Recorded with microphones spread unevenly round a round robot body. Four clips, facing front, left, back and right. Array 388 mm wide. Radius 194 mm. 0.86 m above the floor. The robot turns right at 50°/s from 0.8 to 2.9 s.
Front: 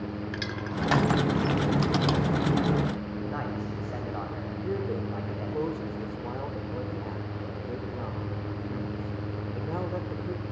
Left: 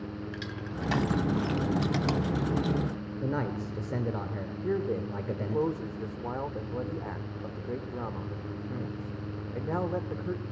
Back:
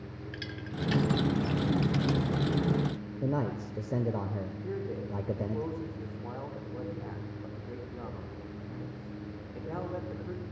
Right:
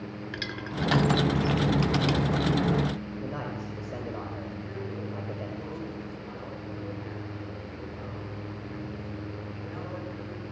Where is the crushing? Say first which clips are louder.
Right 3 dB, front 7 dB; 30° right, 1.5 m; by 2.2 s 40° left, 1.5 m.